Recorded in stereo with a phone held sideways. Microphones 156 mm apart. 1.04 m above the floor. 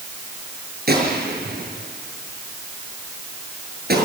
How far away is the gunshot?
About 6.5 m.